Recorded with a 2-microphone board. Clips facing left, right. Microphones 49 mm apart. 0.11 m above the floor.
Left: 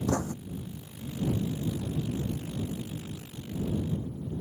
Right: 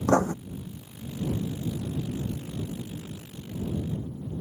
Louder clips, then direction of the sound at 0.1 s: Right 9 dB; 50° right (ahead or behind).